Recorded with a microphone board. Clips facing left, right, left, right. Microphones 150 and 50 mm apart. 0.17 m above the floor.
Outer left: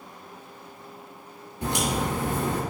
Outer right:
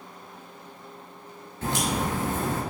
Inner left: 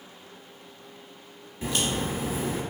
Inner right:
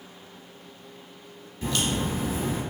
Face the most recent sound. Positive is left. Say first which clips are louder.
# outer left 1 dB, inner right 1 dB
turn(degrees=15)  # may be behind; listen again after turning